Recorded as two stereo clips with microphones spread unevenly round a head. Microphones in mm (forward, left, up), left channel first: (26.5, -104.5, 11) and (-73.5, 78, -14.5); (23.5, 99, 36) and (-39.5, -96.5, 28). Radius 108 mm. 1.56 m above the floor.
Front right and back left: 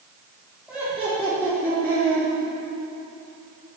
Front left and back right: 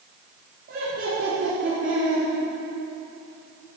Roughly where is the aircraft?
I don't hear an aircraft.